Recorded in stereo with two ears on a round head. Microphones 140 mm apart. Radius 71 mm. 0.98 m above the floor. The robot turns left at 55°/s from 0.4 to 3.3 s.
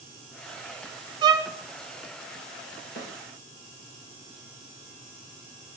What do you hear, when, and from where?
1.2 s a violin: 30° right (ahead or behind), 0.6 m; by 1.5 s 15° right (ahead or behind), 0.6 m
3.0 s a snare drum: 75° left (ahead or behind), 1.2 m; by 3.1 s 70° left (ahead or behind), 1.2 m